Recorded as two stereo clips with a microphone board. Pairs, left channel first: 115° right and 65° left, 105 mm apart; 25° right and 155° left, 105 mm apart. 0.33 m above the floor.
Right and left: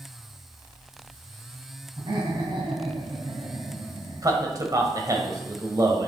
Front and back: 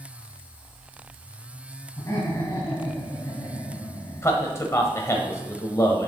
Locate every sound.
2.0 s laughter: 35° left, 2 m
4.2 s a man speaking: 30° left, 1.3 m